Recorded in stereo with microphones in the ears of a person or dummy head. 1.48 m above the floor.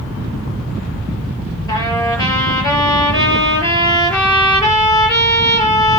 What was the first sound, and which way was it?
A trumpet, 20° left (ahead or behind).